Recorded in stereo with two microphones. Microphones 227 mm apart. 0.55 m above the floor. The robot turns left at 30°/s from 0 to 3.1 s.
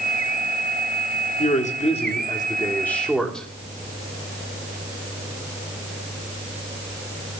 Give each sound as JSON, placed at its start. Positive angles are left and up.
{"t": 1.4, "sound": "a man speaking", "azimuth_deg": 55, "distance_m": 1.5}